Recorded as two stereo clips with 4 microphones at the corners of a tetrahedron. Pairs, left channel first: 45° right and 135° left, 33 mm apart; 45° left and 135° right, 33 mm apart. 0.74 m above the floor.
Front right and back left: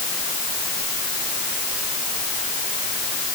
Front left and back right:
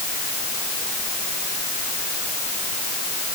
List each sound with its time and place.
Only background noise.